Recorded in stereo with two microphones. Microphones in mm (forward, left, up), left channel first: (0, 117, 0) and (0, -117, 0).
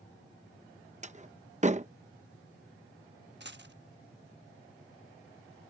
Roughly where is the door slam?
Right.